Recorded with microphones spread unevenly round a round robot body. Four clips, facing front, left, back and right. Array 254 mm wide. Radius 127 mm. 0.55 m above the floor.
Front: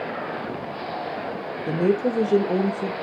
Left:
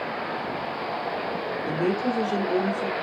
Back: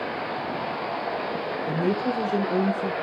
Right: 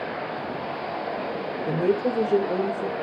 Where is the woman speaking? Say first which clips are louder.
Right 3 dB, front 5 dB; 15° right, 1.3 m.